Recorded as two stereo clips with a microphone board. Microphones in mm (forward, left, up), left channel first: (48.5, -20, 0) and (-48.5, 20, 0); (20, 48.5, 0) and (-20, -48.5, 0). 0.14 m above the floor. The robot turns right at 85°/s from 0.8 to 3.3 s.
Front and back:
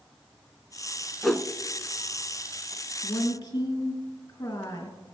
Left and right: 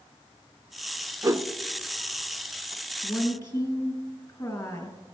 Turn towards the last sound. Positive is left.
turn(degrees=25)